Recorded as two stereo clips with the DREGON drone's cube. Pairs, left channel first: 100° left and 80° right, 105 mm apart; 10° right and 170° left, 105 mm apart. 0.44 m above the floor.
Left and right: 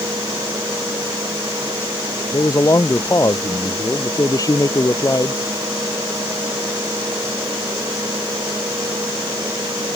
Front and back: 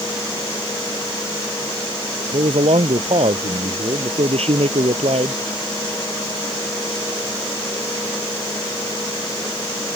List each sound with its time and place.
2.3 s a man speaking: 155° left